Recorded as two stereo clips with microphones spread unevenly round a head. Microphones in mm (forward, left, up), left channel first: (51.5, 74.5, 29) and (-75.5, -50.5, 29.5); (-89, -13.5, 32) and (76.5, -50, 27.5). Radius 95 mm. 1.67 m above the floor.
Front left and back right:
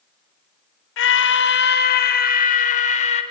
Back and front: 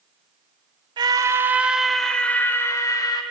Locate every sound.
1.0 s a scream: 55° left, 1.5 m; by 3.2 s 100° left, 2.5 m